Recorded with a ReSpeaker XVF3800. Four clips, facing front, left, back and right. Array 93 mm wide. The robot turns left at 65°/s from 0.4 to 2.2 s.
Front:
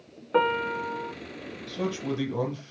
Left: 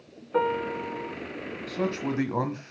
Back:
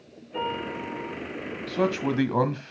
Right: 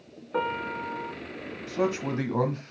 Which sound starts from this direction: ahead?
A piano, at 0.3 s.